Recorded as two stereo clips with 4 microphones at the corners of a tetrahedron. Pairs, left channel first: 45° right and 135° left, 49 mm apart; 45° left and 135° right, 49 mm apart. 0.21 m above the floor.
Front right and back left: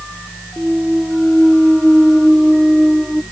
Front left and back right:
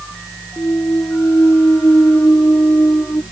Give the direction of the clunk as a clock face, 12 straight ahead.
10 o'clock.